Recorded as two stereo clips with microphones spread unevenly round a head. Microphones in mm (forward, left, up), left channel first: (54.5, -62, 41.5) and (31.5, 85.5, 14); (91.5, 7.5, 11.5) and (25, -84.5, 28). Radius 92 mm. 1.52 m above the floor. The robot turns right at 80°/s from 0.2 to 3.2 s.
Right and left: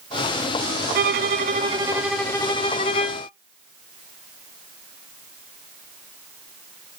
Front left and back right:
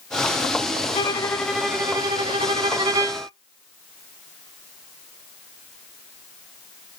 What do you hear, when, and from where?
0.9 s a violin: 110° left, 0.7 m; by 3.3 s 70° right, 0.7 m